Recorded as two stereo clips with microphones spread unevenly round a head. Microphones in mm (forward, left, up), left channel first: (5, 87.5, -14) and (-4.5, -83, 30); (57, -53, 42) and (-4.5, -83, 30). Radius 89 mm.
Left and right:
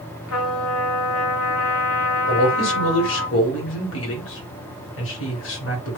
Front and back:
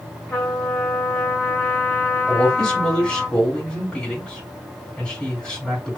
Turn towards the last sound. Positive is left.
turn(degrees=105)